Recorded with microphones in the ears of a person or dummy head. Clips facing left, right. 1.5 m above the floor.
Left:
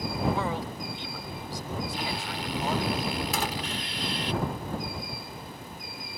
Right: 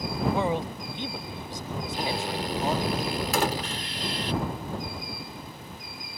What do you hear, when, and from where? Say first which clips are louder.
0.3 s a man speaking: right 4 dB; 20° right (ahead or behind)
1.9 s a drill: right 4 dB; 40° right (ahead or behind)
3.3 s a door slam: right 5 dB; 65° right (ahead or behind)